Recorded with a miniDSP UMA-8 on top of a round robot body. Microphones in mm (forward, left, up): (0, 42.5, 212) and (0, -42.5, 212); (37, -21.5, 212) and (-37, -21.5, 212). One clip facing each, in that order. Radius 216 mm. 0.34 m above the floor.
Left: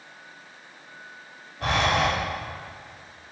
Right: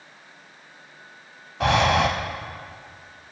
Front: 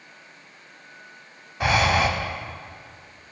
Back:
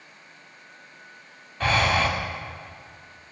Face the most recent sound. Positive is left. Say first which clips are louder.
# right 4 dB, front 2 dB
turn(degrees=-75)